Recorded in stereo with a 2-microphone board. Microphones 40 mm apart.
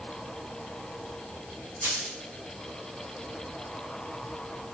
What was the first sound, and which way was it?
A dropped coin, 80° right.